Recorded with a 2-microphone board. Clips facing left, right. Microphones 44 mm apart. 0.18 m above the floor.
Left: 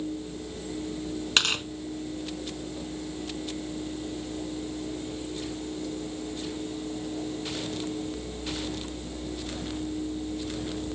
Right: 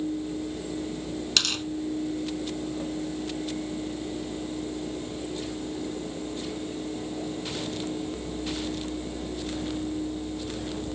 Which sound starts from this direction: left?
Tearing paper, at 1.4 s.